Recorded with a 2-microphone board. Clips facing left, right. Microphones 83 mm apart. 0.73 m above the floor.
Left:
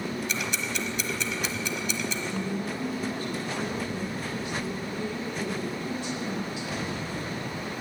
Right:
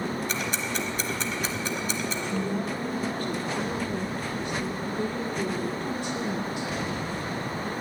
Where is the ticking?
45° right (ahead or behind), 1.1 m.